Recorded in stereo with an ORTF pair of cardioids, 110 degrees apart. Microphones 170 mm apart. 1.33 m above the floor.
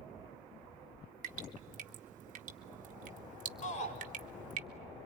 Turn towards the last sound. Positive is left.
turn(degrees=45)